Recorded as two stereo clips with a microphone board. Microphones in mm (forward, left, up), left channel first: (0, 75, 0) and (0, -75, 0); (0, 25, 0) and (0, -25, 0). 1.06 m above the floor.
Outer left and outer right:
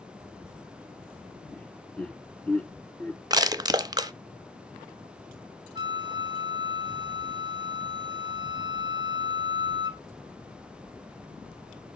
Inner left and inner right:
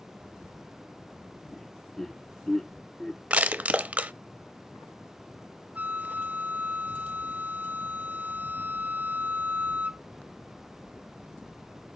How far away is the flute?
About 0.6 m.